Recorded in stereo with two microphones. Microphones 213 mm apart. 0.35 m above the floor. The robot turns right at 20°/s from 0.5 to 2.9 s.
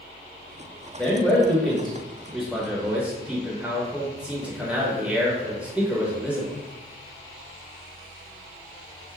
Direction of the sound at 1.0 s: 5° left (ahead or behind).